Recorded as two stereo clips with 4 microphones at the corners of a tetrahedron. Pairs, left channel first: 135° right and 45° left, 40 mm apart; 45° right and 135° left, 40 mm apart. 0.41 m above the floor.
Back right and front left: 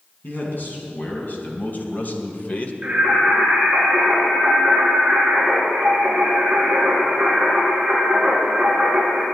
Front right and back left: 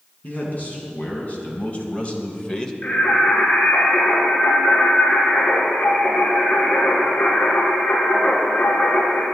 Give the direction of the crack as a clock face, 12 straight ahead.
No crack in this recording.